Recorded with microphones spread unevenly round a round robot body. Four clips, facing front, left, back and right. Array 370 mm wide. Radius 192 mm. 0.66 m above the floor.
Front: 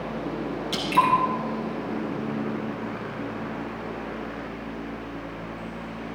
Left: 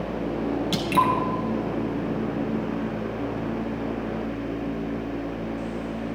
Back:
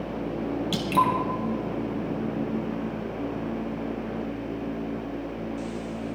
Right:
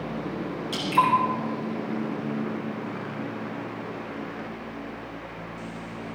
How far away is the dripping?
About 2.5 m.